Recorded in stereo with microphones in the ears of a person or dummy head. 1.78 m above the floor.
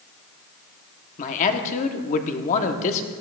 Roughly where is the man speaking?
Left.